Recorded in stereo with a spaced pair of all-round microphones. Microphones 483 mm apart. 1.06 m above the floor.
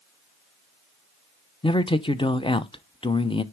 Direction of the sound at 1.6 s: 10° left (ahead or behind).